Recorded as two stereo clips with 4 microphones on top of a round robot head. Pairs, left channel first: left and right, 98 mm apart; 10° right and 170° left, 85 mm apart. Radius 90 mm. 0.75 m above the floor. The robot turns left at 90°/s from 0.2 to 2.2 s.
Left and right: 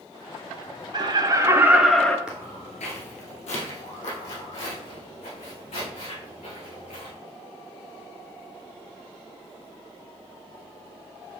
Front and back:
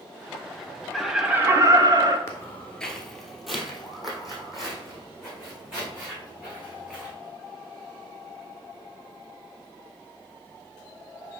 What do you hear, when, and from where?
0.9 s laughter: 90° right, 1.1 m; by 2.2 s 155° left, 1.1 m
2.3 s footsteps: 10° right, 0.7 m; by 7.1 s 90° left, 6.5 m